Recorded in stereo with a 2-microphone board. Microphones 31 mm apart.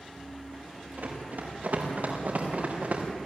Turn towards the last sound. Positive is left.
turn(degrees=-60)  # may be behind; listen again after turning